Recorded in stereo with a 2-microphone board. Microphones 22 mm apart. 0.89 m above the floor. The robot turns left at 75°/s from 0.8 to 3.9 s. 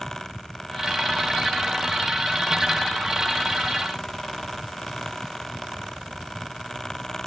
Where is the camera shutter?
No camera shutter in this recording.